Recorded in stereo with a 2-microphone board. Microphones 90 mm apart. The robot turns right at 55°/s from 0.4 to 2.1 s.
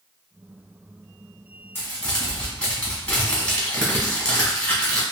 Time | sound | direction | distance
1.8 | crumpling | 25° left (ahead or behind) | 1.2 m